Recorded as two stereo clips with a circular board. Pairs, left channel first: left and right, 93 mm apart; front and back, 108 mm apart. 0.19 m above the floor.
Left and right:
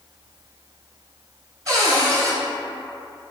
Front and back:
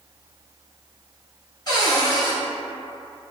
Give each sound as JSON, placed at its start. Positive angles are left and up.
{"t": 1.7, "sound": "a cupboard door", "azimuth_deg": -45, "distance_m": 0.8}